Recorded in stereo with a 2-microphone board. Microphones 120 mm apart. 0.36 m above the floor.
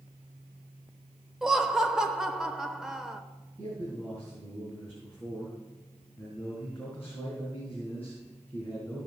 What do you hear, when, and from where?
1.4 s laughter: 5° right (ahead or behind), 0.8 m
3.6 s a man speaking: 15° left (ahead or behind), 4.5 m